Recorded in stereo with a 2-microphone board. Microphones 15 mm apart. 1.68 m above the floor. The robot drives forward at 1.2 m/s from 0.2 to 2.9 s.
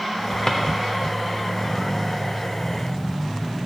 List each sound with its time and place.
0.5 s a drawer: 40° left (ahead or behind), 1.1 m